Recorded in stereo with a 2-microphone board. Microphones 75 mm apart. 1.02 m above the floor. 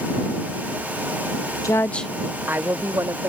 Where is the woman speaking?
50° left (ahead or behind); by 3.3 s 45° right (ahead or behind).